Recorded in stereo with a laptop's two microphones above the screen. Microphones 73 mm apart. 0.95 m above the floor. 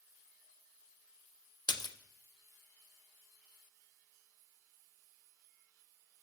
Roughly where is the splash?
Left.